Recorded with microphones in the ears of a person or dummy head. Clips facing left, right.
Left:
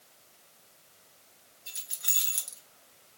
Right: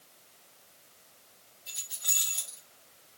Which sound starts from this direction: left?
Keys jangling, at 1.7 s.